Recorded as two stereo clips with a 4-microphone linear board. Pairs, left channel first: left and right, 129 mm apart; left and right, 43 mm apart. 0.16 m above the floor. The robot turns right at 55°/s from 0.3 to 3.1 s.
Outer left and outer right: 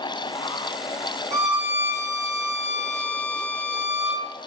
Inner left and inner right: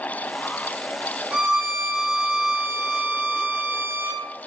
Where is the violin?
155° right, 2.5 m; by 4.2 s 55° right, 2.5 m.